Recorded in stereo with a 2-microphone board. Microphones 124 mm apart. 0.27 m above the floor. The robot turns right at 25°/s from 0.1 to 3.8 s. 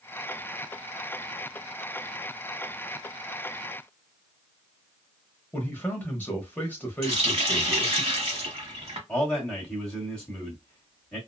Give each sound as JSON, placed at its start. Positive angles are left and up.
{"t": 5.5, "sound": "a man speaking", "side_deg": 15, "distance_m": 0.9}
{"t": 7.0, "sound": "a running tap", "side_deg": -50, "distance_m": 1.1}
{"t": 9.1, "sound": "a man speaking", "side_deg": 5, "distance_m": 1.7}